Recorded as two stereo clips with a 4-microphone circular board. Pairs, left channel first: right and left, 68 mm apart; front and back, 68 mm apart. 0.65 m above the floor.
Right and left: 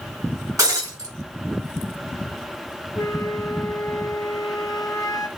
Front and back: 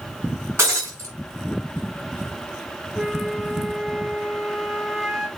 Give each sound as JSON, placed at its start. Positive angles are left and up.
{"t": 0.6, "sound": "breaking glass", "azimuth_deg": 125, "distance_m": 4.5}
{"t": 3.0, "sound": "a flute", "azimuth_deg": -90, "distance_m": 1.5}